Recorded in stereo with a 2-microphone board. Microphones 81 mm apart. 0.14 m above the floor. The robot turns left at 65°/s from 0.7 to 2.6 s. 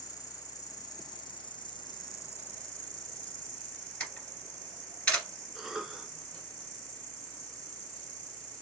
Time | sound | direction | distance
0.0 | an insect | 135° left | 2 m
4.0 | a camera shutter | 15° left (ahead or behind) | 2.5 m
5.5 | a cough | 5° right (ahead or behind) | 2 m